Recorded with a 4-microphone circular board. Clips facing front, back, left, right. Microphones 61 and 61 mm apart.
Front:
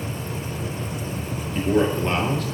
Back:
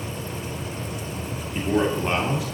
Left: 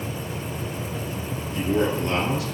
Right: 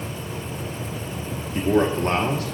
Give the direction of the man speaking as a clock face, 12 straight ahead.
3 o'clock.